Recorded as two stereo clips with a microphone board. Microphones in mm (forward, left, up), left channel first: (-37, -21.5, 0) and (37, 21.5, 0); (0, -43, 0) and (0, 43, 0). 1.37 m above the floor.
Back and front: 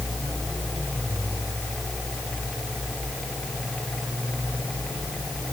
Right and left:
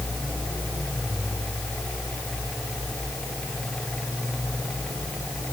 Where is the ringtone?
I don't hear a ringtone.